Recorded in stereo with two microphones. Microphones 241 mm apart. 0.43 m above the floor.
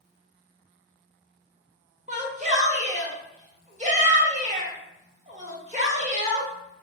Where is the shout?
25° right (ahead or behind), 1.0 m.